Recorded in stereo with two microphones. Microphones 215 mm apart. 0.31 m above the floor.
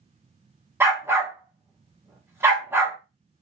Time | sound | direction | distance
0.8 | a dog barking | 10° right (ahead or behind) | 0.8 m